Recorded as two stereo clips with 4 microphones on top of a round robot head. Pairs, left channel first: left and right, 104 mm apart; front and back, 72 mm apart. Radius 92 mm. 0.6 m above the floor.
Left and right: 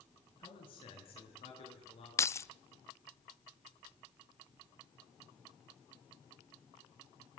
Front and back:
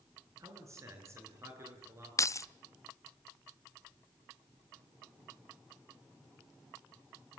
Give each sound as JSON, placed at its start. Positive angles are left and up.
{"t": 0.4, "sound": "a man speaking", "azimuth_deg": 135, "distance_m": 8.0}
{"t": 2.2, "sound": "keys jangling", "azimuth_deg": 35, "distance_m": 0.6}